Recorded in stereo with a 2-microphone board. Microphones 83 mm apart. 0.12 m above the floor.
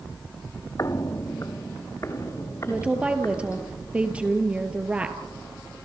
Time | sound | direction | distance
0.8 | footsteps | 40° left (ahead or behind) | 0.7 m
2.7 | a woman speaking | 15° right (ahead or behind) | 2.5 m